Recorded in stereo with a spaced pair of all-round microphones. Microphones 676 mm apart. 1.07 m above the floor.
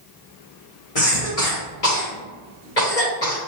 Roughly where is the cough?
Left.